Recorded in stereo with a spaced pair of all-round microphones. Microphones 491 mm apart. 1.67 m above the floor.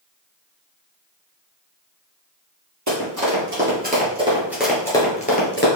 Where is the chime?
I don't hear a chime.